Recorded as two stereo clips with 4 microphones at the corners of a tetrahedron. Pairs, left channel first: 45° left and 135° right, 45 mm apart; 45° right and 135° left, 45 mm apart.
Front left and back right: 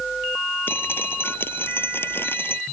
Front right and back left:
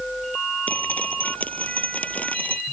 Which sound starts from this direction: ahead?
Dripping, at 0.7 s.